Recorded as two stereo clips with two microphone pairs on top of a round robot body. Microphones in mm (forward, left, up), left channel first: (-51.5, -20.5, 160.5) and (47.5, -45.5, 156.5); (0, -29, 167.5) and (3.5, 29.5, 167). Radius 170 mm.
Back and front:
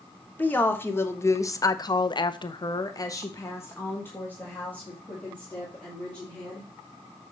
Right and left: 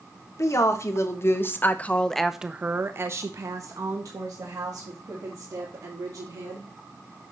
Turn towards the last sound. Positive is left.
turn(degrees=85)